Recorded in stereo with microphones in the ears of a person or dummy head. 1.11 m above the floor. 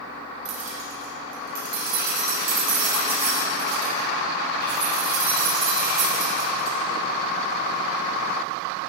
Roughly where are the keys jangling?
Right.